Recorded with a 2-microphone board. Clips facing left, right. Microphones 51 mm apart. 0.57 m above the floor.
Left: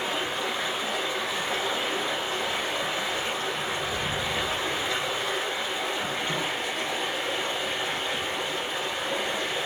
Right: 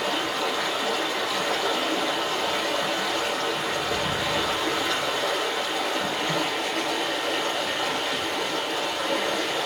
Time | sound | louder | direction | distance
0.0 | running water | right 3 dB | 70° right (ahead or behind) | 5 m